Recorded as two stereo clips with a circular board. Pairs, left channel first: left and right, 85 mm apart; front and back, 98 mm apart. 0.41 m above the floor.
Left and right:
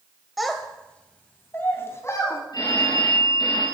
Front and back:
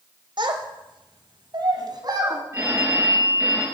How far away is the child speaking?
About 1.7 m.